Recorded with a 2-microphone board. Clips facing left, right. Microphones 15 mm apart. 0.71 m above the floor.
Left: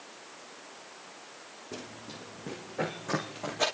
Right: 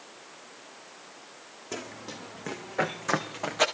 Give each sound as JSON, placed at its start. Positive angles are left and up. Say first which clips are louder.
{"t": 1.7, "sound": "running footsteps", "louder": "right 5 dB", "side_deg": -75, "distance_m": 2.5}